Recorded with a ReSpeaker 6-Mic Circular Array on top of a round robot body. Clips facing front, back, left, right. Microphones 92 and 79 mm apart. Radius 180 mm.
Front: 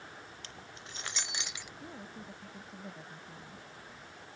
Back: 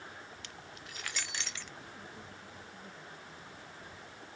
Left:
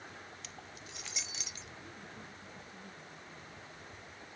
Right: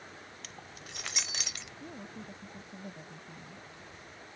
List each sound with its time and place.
0.4 s keys jangling: 50° right; by 1.7 s 80° right
1.8 s a woman speaking: 60° right